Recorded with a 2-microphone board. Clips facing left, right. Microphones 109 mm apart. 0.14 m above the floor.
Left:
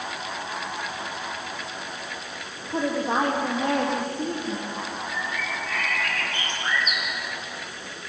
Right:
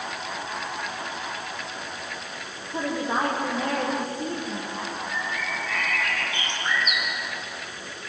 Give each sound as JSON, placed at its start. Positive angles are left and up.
{"t": 2.7, "sound": "a woman speaking", "side_deg": 75, "distance_m": 7.0}
{"t": 5.1, "sound": "a bird", "side_deg": 45, "distance_m": 5.0}